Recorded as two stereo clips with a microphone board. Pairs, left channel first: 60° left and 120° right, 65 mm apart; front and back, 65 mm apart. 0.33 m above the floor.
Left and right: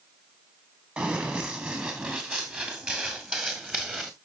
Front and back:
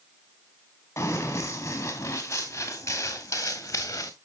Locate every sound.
1.0 s running footsteps: 50° right, 4 m; by 4.1 s 45° right, 2.0 m